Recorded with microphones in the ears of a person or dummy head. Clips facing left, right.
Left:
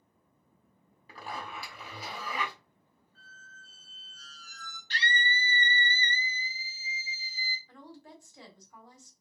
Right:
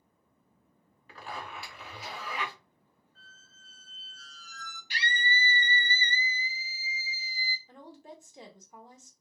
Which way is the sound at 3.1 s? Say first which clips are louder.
Left 6 dB; 65° left (ahead or behind).